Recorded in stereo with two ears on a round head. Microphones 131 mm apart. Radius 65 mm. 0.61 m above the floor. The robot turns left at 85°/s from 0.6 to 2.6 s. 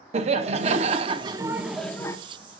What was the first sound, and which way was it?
Laughter, 80° right.